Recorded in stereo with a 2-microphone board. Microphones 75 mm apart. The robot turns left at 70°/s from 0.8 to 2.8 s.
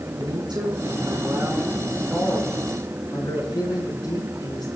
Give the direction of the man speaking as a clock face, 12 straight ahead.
4 o'clock.